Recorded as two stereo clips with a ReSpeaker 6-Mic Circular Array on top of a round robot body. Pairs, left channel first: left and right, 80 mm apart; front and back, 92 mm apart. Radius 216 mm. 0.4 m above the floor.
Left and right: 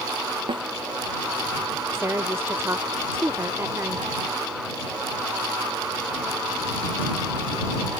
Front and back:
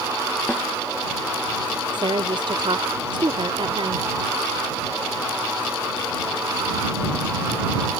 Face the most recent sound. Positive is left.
turn(degrees=-150)